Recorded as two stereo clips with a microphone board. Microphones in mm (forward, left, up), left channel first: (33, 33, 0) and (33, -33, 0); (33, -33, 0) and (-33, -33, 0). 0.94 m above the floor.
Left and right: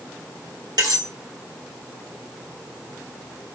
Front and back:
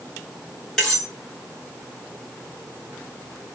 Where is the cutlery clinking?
80° right, 2.5 m.